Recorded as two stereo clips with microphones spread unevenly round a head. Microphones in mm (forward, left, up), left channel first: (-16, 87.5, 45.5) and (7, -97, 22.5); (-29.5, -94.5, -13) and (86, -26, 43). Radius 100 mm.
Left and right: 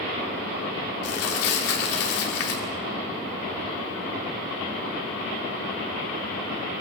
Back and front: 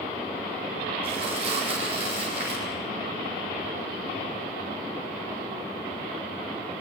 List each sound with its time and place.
1.0 s crumpling: 95° left, 6 m